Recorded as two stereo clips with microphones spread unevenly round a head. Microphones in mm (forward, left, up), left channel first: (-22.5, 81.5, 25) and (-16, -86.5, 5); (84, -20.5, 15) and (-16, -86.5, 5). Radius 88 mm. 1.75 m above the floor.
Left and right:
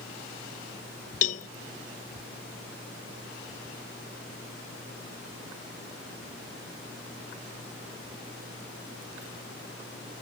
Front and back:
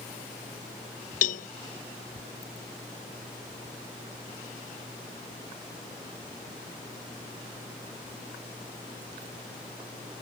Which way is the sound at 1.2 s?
45° left.